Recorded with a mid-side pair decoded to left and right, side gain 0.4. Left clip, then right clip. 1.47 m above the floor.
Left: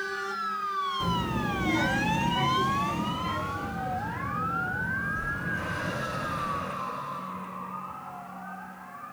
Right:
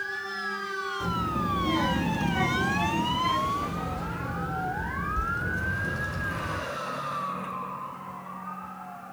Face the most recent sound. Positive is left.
turn(degrees=-75)